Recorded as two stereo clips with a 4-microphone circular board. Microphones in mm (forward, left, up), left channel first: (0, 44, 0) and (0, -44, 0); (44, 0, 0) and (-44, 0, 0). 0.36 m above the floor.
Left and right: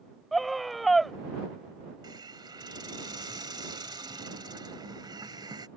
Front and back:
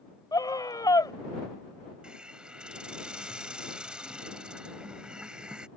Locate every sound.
0.3 s a scream: straight ahead
2.0 s a hiss: 100° right